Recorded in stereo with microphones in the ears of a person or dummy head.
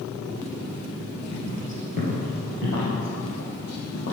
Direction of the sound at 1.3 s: 35° left (ahead or behind).